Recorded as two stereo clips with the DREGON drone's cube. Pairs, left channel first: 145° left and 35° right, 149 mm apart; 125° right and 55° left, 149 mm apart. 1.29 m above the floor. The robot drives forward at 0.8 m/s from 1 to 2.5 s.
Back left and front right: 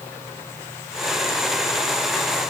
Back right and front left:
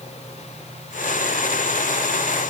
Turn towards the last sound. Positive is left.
No sound to turn to.